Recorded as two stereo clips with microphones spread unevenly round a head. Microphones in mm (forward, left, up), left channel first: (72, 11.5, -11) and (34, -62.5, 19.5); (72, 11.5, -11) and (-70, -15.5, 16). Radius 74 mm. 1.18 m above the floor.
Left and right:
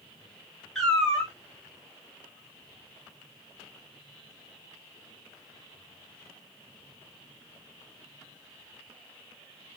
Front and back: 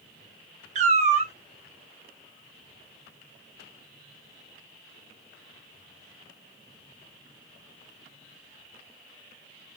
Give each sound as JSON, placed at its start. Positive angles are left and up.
{"t": 0.8, "sound": "a cat meowing", "azimuth_deg": 160, "distance_m": 0.8}